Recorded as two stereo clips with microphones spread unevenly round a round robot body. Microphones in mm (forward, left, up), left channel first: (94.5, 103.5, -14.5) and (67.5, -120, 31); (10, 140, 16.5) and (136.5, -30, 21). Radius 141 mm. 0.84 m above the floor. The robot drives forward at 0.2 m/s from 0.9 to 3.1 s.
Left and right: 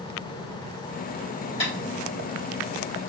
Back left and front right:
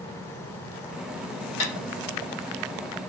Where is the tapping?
155° left, 1.0 m.